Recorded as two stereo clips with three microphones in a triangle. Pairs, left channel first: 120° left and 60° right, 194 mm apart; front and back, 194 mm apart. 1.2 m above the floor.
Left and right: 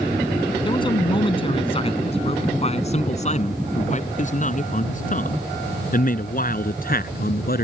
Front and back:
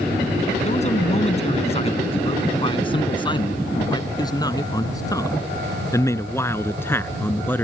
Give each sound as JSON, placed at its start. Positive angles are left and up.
{"t": 0.7, "sound": "a man speaking", "azimuth_deg": 55}